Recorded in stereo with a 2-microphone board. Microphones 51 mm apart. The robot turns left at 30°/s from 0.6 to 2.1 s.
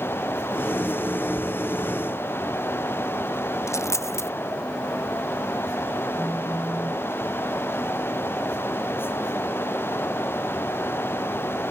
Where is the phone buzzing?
20° left (ahead or behind).